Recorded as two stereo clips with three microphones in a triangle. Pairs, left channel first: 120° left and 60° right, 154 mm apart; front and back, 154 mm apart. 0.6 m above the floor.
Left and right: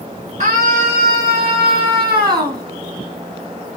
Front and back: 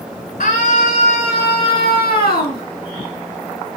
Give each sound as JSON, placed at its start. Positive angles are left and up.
{"t": 0.4, "sound": "a scream", "azimuth_deg": -20, "distance_m": 6.5}